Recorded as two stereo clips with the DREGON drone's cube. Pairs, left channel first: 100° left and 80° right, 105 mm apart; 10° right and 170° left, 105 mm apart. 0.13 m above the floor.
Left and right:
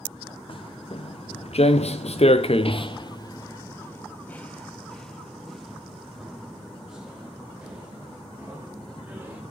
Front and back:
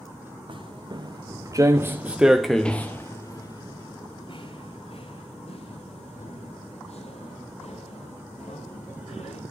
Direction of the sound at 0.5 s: 130° left.